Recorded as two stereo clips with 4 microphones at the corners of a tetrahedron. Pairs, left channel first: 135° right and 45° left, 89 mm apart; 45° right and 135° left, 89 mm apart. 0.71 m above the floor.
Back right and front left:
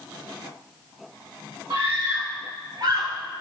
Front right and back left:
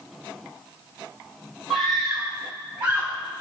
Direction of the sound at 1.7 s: 50° left.